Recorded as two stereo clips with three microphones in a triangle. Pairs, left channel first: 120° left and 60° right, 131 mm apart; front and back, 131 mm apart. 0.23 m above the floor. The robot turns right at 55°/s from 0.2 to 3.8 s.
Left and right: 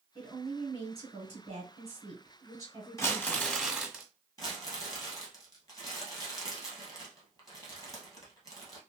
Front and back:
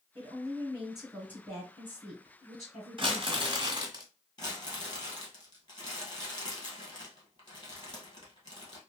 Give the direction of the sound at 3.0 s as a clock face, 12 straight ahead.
6 o'clock.